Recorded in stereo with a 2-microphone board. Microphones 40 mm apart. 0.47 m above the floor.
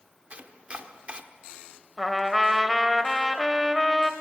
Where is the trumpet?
10° right (ahead or behind), 1.0 m.